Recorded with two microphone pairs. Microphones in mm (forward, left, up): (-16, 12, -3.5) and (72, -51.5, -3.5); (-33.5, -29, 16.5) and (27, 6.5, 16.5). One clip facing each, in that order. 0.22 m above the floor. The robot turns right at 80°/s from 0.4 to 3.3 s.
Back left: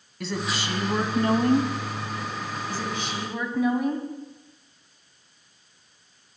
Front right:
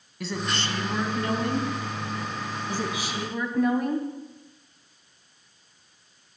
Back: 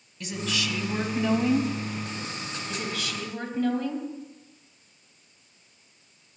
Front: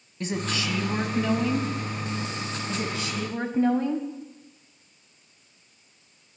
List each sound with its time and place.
0.2 s a woman speaking: 50° left, 1.2 m; by 1.7 s 155° left, 1.2 m
2.7 s a woman speaking: 15° left, 1.1 m; by 4.1 s 60° left, 1.1 m